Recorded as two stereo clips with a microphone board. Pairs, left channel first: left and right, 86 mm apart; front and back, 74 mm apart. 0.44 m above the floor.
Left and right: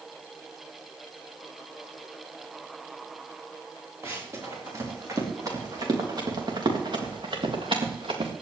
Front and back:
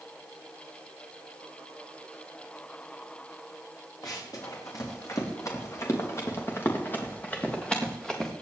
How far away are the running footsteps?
About 5 m.